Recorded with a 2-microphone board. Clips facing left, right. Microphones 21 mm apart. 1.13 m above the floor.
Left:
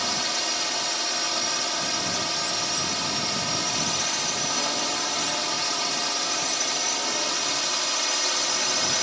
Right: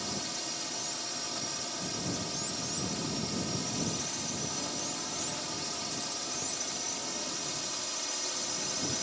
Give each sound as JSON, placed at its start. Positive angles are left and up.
{"t": 0.0, "sound": "a drone", "side_deg": 40}